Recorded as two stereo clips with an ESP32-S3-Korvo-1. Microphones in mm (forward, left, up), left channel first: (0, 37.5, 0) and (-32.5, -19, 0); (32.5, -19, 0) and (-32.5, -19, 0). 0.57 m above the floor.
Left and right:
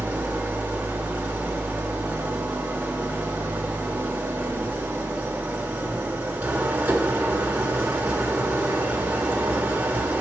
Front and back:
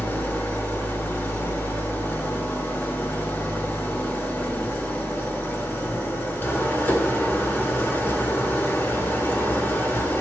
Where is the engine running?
50° right, 1.2 m.